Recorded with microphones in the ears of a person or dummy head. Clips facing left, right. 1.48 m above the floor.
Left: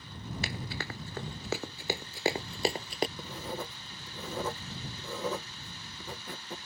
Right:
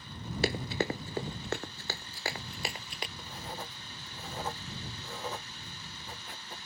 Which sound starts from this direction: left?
Writing, at 3.2 s.